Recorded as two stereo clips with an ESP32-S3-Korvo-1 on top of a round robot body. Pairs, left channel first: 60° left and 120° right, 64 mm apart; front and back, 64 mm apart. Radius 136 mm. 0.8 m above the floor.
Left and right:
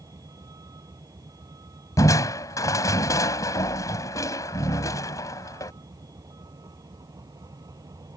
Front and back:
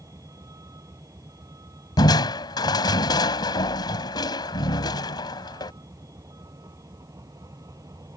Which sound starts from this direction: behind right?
A vehicle, at 0.0 s.